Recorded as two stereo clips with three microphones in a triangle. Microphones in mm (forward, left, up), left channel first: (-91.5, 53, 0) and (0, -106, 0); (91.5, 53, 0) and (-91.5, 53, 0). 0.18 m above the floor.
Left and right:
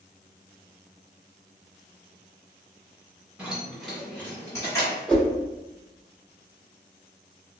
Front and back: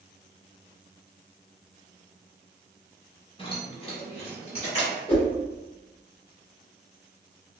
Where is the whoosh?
40° left, 1.7 m.